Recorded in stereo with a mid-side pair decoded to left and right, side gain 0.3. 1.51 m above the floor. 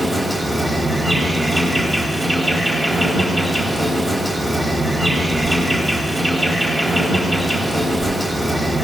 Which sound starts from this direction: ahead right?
An insect, at 0.0 s.